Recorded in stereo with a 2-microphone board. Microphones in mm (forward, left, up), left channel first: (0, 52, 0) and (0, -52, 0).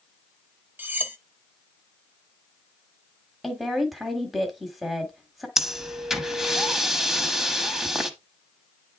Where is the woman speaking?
Centre (ahead or behind), 1.4 m.